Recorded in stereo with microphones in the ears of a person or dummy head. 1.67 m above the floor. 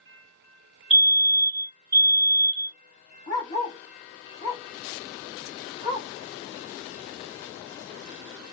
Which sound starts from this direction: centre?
A fire alarm, at 0.9 s.